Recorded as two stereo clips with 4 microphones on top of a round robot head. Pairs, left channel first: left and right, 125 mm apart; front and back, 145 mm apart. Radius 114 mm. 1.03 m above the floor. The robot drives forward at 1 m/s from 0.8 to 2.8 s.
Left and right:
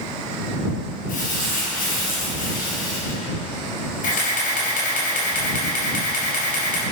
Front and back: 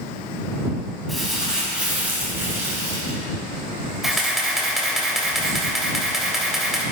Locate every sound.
1.1 s crumpling: 90° left, 5 m; by 3.2 s 110° left, 5.5 m
4.0 s a camera shutter: 95° left, 3.5 m